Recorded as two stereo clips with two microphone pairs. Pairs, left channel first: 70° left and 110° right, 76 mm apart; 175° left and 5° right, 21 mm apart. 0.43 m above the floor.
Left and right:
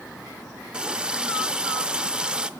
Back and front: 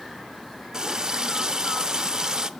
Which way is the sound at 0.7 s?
35° right.